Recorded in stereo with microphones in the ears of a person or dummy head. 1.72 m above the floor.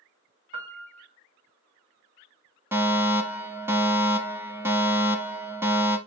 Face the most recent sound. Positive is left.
turn(degrees=-10)  # may be behind; listen again after turning